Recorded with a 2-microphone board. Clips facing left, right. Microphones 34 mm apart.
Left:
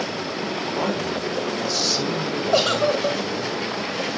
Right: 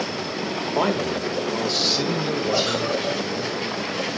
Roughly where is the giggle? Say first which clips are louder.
Left 7 dB; left.